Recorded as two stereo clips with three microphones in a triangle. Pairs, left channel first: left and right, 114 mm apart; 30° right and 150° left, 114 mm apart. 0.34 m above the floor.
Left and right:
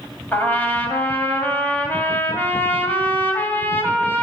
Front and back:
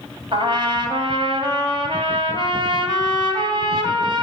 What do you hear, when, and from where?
0.3 s a trumpet: 160° left, 2 m